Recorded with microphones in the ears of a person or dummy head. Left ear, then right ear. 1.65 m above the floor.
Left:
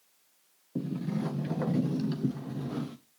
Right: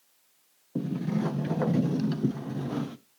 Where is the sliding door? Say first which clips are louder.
Right 3 dB; 15° right (ahead or behind), 0.6 m.